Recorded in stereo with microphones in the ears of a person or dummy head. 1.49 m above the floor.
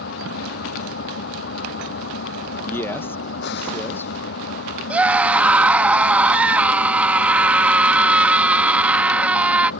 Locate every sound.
0.0 s an engine running: 70° left (ahead or behind)
2.6 s a man speaking: 25° left (ahead or behind)
4.9 s a scream: 10° right (ahead or behind)